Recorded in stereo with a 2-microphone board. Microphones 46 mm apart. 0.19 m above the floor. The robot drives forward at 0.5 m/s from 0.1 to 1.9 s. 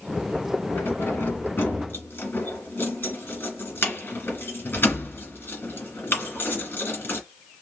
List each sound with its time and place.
0.8 s keys jangling: 45° left (ahead or behind), 1.4 m